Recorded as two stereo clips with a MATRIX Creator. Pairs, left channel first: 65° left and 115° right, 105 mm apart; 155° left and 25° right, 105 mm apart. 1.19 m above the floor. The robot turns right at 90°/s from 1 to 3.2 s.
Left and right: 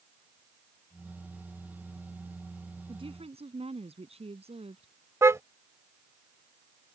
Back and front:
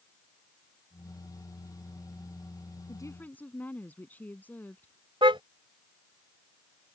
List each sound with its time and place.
2.9 s a woman speaking: 155° right; by 4.9 s 130° right
5.2 s a car horn: 50° right